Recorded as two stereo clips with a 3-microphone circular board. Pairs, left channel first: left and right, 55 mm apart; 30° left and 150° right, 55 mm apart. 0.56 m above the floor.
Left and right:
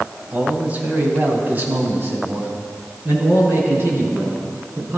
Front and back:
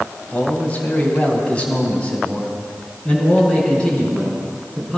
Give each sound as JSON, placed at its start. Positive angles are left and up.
{"t": 0.3, "sound": "a man speaking", "azimuth_deg": -30, "distance_m": 3.0}